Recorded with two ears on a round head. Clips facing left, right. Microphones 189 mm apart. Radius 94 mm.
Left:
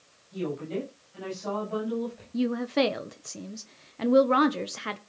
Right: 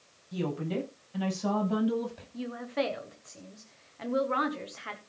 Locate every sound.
0.3 s a woman speaking: 60° right (ahead or behind), 9.5 m; by 2.2 s 70° right (ahead or behind), 10.5 m
2.3 s a woman speaking: 60° left (ahead or behind), 0.9 m